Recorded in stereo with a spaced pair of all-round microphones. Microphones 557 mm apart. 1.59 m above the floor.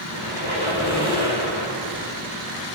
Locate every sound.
0.1 s a squeak: 45° left (ahead or behind), 4 m